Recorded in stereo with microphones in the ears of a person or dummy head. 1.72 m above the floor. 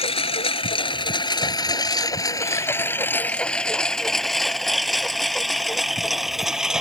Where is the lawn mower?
30° left (ahead or behind); by 6.8 s 5° right (ahead or behind).